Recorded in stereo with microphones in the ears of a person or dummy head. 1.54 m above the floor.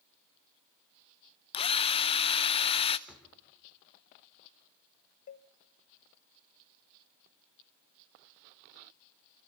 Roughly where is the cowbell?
Left.